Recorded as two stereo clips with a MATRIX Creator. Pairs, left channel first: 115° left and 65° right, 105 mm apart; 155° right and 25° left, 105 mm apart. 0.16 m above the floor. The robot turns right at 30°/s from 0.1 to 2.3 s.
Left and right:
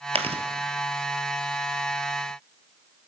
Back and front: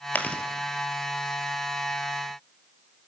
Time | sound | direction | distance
0.1 | chewing | 85° right | 1.3 m